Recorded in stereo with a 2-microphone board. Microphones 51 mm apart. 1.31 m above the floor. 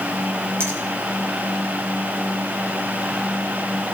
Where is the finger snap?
60° right (ahead or behind), 5.5 m.